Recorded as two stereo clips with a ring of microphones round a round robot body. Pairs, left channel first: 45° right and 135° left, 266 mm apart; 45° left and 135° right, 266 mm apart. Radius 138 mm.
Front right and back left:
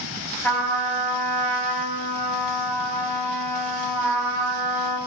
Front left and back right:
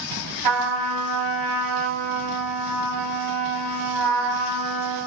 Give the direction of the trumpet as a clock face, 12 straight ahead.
4 o'clock.